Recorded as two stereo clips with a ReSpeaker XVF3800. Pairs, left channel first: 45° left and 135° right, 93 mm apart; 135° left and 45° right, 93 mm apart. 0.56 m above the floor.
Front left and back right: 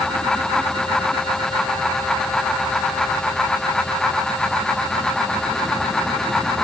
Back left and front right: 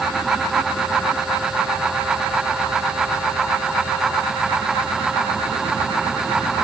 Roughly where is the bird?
No bird in this recording.